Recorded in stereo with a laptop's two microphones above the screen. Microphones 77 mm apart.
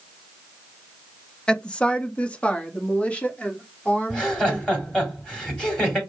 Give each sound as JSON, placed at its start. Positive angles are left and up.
{"t": 1.5, "sound": "a woman speaking", "side_deg": 10, "distance_m": 0.6}
{"t": 4.1, "sound": "laughter", "side_deg": 10, "distance_m": 3.0}